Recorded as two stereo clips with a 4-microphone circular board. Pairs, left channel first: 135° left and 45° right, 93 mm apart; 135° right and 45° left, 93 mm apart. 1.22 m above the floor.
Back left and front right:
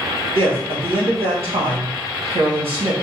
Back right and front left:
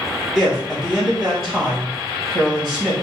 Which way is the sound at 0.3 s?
50° right.